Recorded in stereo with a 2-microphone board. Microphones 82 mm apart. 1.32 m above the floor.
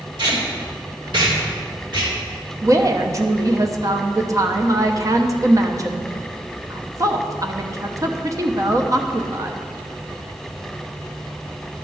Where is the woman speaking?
40° right (ahead or behind), 0.8 m.